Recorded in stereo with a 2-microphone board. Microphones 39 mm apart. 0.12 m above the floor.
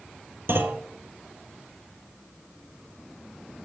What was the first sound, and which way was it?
A clunk, 65° right (ahead or behind).